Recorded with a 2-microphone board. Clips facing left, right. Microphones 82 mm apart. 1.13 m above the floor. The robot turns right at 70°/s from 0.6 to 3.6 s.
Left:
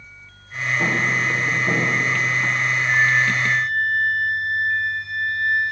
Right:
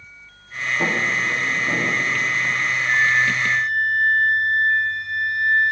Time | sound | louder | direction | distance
0.8 | footsteps | even | 15° right (ahead or behind) | 5 m
2.9 | a flute | even | 170° left | 4.5 m